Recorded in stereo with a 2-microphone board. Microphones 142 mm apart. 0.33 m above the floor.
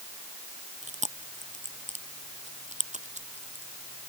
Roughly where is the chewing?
Right.